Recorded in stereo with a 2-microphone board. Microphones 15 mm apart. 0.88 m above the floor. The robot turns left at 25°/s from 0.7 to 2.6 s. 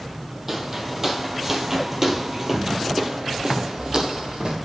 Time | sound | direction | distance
0.5 | footsteps | 25° right (ahead or behind) | 1.5 m